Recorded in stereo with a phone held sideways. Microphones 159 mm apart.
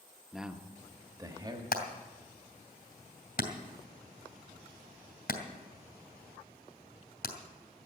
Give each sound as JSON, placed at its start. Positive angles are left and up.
{"t": 0.3, "sound": "a man speaking", "side_deg": 0, "distance_m": 1.0}
{"t": 1.7, "sound": "hammering", "side_deg": 80, "distance_m": 2.5}